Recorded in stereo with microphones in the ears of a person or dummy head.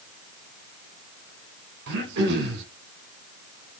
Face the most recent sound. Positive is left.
turn(degrees=-60)  # may be behind; listen again after turning